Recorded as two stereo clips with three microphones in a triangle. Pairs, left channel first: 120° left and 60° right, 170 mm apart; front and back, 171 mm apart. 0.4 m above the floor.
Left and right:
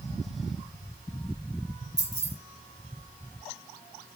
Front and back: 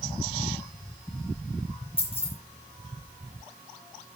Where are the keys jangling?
55° right, 8 m.